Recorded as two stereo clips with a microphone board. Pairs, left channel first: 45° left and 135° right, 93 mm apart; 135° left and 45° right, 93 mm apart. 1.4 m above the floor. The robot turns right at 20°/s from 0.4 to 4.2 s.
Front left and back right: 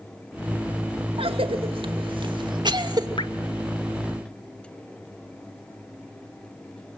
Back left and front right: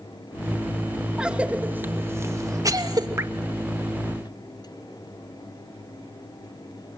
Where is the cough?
125° right, 2.5 m; by 3.1 s 90° right, 2.5 m.